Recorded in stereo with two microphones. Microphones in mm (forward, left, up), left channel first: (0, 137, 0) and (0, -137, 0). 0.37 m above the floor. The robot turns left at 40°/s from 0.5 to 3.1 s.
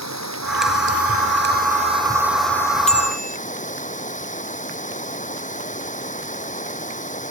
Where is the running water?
105° right; by 7.3 s 155° left.